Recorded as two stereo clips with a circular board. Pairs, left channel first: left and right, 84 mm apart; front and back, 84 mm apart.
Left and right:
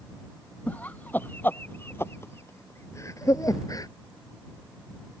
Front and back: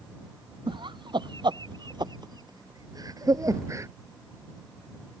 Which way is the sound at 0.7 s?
160° left.